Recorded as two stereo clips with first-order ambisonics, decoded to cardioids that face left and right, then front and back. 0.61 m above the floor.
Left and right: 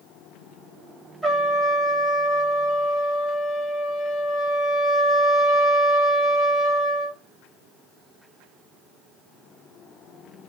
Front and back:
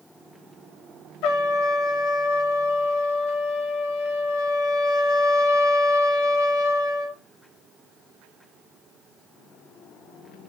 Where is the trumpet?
10° left, 0.7 m.